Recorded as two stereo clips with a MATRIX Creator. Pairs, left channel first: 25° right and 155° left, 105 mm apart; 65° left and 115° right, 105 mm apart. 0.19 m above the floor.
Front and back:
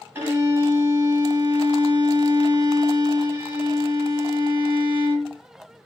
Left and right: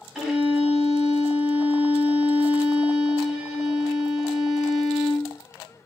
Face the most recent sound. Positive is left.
turn(degrees=165)